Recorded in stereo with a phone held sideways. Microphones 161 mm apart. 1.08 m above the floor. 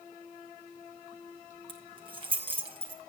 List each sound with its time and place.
1.7 s keys jangling: 35° right (ahead or behind), 4.5 m